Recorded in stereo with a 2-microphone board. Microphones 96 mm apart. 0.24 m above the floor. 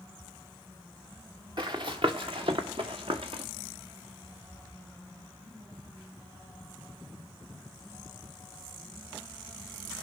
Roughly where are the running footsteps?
Right.